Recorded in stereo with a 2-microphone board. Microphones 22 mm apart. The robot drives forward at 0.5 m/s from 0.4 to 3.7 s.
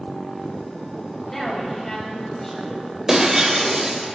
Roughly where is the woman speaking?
Left.